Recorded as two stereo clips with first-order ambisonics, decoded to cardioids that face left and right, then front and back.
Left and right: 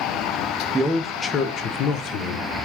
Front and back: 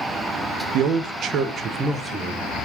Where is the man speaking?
170° right, 0.6 m; by 2.7 s 90° left, 0.9 m.